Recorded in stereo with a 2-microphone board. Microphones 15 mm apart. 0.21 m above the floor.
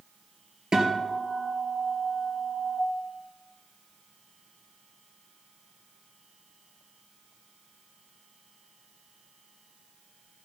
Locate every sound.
0.7 s a guitar: 50° right (ahead or behind), 2.0 m